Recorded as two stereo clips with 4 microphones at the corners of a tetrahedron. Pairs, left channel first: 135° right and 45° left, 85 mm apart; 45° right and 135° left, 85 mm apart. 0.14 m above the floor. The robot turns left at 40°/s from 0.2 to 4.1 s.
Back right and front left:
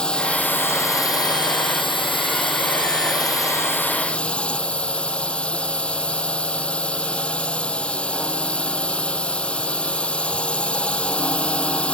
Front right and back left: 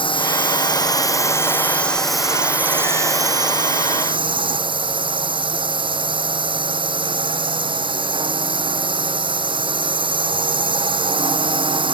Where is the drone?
55° right; by 11.9 s 145° left.